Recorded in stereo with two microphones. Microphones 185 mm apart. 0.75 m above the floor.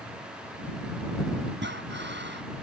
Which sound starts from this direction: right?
Breathing, at 1.6 s.